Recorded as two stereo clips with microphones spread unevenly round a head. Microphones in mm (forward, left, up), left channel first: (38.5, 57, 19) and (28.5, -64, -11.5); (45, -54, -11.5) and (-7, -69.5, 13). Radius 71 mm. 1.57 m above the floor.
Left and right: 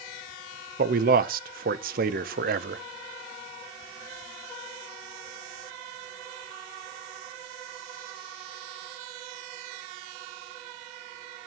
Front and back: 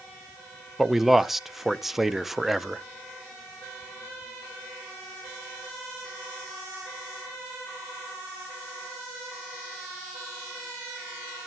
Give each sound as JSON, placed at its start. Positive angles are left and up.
{"t": 0.8, "sound": "a man speaking", "azimuth_deg": -90, "distance_m": 0.8}